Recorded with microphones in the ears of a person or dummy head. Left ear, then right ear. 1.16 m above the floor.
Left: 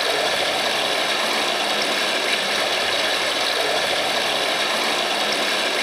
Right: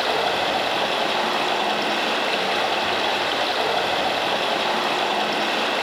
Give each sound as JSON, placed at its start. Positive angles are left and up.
{"t": 0.0, "sound": "running water", "side_deg": 60, "distance_m": 4.5}